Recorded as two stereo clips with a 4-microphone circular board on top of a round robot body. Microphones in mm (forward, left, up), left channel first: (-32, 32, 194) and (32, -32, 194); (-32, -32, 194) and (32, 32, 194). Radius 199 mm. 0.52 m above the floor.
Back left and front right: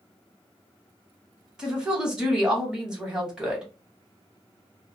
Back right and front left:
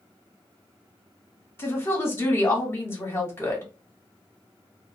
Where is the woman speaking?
115° right, 1.3 m.